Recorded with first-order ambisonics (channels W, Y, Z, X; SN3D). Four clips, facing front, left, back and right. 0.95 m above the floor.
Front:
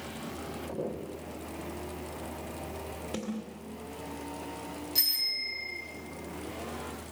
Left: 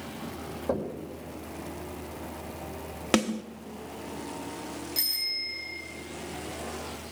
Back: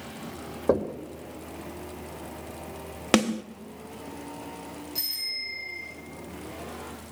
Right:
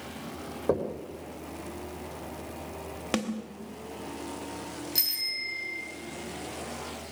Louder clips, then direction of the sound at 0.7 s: Right 3 dB, back 12 dB; 165° right.